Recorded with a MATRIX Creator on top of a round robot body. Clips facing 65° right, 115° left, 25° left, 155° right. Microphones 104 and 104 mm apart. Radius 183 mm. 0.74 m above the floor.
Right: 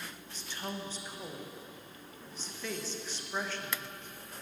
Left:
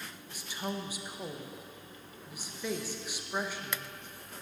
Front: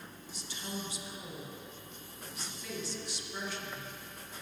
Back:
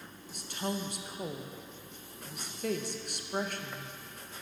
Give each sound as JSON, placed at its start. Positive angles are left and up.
{"t": 0.3, "sound": "a woman speaking", "azimuth_deg": -170, "distance_m": 1.0}